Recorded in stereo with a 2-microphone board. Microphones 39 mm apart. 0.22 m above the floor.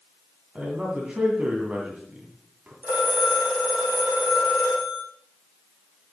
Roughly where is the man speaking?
Right.